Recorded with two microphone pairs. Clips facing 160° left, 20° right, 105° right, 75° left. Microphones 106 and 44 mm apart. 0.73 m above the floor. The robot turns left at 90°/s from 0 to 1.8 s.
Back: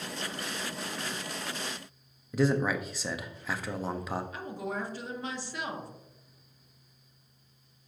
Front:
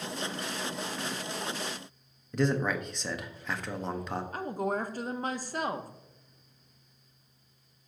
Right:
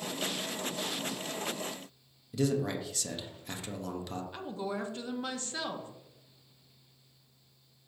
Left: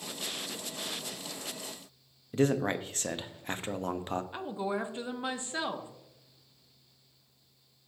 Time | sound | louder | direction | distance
2.3 | a man speaking | back 1 dB, left 3 dB | 75° left | 0.6 m
4.3 | a woman speaking | front 4 dB, left 3 dB | 10° left | 0.7 m